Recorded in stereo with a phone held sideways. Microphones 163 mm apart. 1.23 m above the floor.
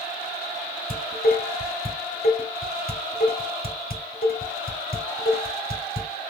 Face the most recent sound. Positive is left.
turn(degrees=65)  # may be behind; listen again after turning